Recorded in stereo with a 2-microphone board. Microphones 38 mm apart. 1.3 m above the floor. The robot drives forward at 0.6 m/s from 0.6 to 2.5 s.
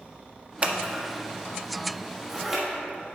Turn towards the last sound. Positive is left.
turn(degrees=-10)  # may be behind; listen again after turning